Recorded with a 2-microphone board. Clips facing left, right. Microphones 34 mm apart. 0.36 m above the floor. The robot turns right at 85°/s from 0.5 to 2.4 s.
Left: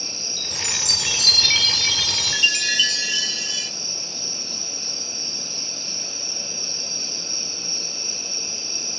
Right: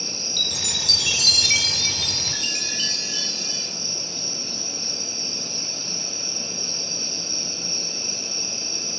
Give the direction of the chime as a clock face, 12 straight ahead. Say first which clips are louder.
Right 4 dB; 2 o'clock.